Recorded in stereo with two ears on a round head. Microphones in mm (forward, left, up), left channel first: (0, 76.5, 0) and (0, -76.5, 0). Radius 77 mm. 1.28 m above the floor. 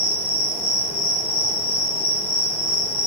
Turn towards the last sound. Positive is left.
turn(degrees=40)  # may be behind; listen again after turning